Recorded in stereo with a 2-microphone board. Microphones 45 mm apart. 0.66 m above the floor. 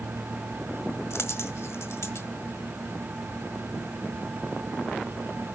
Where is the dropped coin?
85° left, 1.4 m.